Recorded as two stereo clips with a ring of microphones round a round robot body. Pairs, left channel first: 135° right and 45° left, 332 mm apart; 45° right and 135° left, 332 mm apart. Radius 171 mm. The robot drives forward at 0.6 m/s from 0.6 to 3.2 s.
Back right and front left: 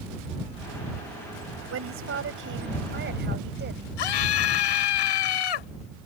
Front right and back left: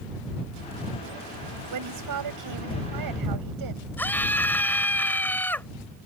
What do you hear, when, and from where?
1.7 s a woman speaking: 95° left; by 3.9 s 105° left
4.0 s a scream: 130° right